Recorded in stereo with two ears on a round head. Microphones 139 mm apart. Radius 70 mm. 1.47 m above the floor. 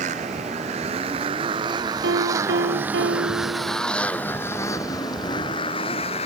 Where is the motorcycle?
45° right (ahead or behind); by 6.3 s 40° left (ahead or behind).